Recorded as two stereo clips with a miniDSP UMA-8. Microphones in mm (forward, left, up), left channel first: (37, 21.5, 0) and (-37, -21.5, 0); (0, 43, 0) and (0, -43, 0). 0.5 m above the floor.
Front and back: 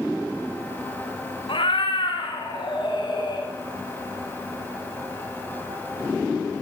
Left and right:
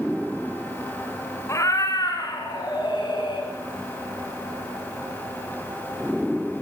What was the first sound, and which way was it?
A cat meowing, 35° left.